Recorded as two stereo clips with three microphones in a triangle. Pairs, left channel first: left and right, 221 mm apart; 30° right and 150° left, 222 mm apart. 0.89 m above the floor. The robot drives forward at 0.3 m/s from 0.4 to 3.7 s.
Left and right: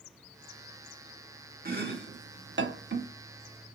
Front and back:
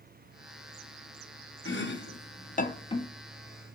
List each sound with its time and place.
1.6 s chopping: 50° right, 0.6 m; by 3.1 s 100° right, 0.5 m